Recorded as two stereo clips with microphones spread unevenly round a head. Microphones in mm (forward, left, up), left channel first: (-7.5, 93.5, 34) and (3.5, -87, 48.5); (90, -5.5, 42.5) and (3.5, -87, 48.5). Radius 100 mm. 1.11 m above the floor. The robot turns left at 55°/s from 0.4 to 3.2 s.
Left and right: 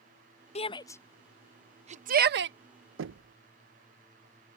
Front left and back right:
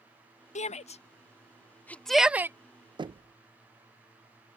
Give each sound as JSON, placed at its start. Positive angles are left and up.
{"t": 0.6, "sound": "a shout", "azimuth_deg": 40}
{"t": 3.0, "sound": "knocking", "azimuth_deg": -85}